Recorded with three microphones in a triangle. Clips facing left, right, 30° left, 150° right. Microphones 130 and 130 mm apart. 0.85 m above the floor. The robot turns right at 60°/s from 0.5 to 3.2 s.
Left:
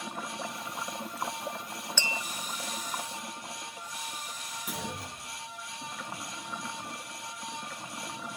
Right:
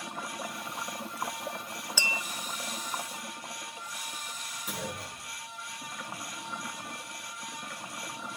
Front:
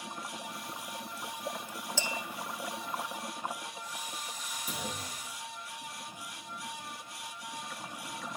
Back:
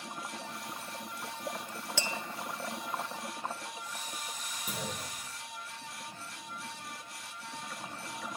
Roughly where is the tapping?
Behind.